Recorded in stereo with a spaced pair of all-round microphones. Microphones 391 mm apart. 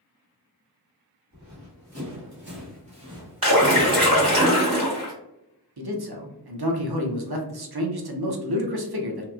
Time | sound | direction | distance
1.3 | running footsteps | 50° right (ahead or behind) | 1.5 m
3.4 | a splash | 55° right (ahead or behind) | 1.3 m
5.8 | a man speaking | 70° right (ahead or behind) | 0.6 m